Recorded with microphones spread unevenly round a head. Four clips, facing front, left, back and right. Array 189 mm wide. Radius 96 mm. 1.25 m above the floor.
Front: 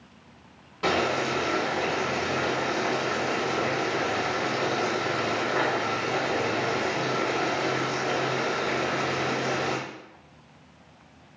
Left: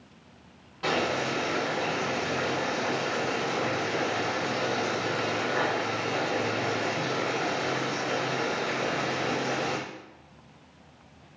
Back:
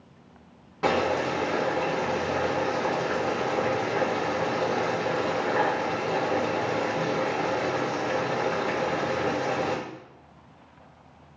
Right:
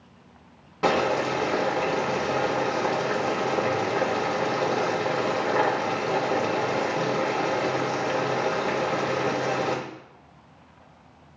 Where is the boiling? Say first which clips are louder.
Right 5 dB, back 1 dB; 90° right, 1.3 m.